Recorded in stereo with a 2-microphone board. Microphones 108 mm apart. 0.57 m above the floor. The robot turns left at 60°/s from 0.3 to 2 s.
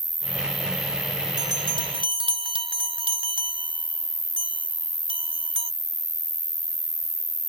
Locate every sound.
0.0 s an insect: 165° right; by 7.5 s 95° left
1.4 s a bell: 40° right (ahead or behind); by 5.7 s 55° right (ahead or behind)